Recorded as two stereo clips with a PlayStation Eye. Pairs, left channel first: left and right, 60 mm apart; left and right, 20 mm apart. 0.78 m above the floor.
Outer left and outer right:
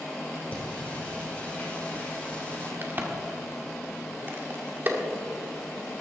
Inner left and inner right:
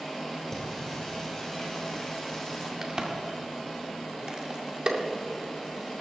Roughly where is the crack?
Right.